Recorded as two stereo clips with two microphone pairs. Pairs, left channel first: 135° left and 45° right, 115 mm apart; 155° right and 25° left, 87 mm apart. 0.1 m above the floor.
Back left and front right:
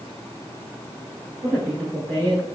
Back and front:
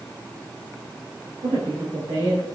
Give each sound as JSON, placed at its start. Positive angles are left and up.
{"t": 1.4, "sound": "a woman speaking", "azimuth_deg": 20, "distance_m": 3.5}